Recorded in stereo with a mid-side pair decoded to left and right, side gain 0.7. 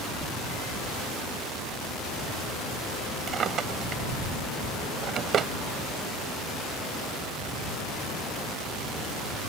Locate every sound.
3.3 s a drawer: 40° right